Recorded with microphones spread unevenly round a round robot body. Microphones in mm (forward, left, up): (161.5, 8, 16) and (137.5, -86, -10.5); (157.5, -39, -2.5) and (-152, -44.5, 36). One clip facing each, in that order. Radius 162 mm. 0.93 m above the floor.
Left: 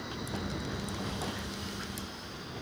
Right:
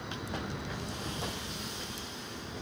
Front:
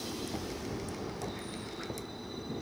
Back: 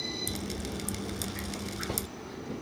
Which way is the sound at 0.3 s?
140° left.